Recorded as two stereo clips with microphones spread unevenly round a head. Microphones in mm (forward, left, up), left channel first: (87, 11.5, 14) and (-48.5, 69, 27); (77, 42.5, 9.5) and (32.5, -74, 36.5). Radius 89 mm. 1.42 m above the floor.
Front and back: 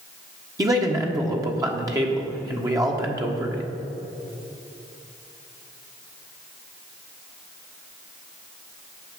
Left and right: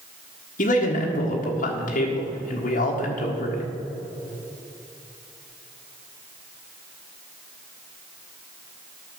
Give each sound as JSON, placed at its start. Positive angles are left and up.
{"t": 0.6, "sound": "a man speaking", "azimuth_deg": 90, "distance_m": 1.4}